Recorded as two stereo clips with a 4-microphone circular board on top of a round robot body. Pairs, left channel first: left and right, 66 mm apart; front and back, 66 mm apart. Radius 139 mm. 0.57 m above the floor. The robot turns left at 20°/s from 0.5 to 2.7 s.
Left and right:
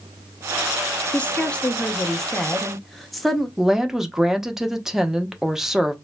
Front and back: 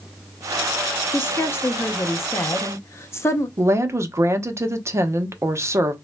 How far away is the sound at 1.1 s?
About 0.7 m.